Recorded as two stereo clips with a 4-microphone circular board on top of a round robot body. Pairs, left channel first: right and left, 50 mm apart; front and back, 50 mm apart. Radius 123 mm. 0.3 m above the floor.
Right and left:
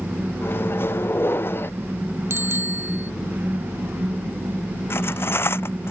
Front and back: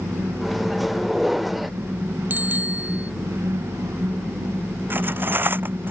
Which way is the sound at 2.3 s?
130° left.